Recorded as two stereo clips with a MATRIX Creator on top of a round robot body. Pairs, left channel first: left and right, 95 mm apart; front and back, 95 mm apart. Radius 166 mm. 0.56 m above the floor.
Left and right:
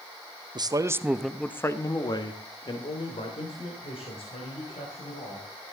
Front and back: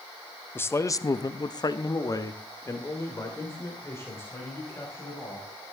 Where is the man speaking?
60° right, 1.3 m; by 5.5 s 70° left, 5.5 m.